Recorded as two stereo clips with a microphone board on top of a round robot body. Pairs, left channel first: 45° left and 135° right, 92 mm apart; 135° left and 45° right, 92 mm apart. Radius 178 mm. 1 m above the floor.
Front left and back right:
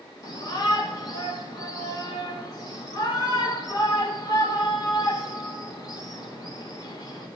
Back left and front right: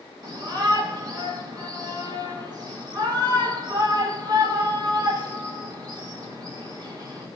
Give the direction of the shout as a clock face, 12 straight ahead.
12 o'clock.